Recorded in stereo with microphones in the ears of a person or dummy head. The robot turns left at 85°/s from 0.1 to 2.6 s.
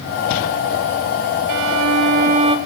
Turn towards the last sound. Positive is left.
turn(degrees=-160)